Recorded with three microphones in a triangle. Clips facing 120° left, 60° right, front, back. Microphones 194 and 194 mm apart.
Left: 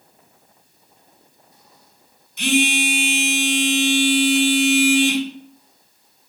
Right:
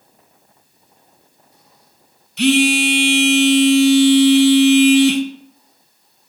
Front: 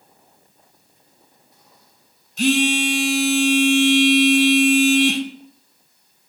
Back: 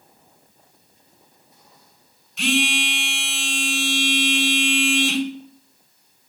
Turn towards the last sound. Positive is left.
turn(degrees=-45)